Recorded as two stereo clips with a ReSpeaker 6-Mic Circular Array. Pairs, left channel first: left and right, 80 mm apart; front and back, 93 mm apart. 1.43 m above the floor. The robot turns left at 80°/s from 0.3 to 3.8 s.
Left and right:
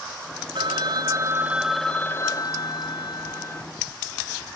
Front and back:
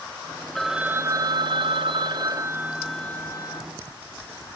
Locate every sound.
0.6 s a phone ringing: 85° right, 0.7 m; by 3.6 s 30° left, 0.7 m